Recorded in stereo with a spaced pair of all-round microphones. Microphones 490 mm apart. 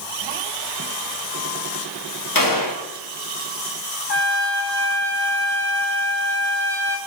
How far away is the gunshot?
About 1.2 m.